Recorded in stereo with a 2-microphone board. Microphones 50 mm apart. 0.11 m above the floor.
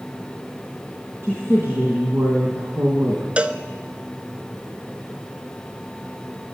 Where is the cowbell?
25° right (ahead or behind), 0.5 m.